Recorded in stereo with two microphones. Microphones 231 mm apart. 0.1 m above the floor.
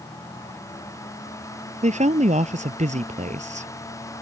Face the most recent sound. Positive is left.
turn(degrees=-30)  # may be behind; listen again after turning